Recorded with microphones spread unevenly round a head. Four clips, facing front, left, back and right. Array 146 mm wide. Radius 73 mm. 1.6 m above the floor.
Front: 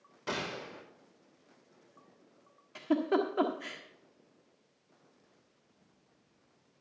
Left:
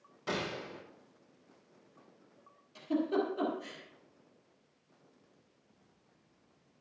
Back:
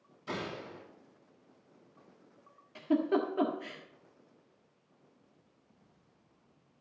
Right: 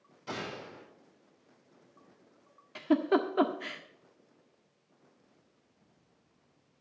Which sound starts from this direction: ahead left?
A gunshot, at 0.3 s.